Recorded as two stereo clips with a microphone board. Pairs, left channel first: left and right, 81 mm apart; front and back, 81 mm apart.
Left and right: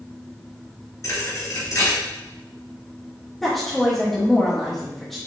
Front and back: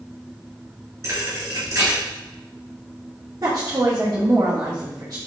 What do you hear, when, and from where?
1.0 s a thud: 130° left, 2 m
3.4 s a woman speaking: 175° left, 1.5 m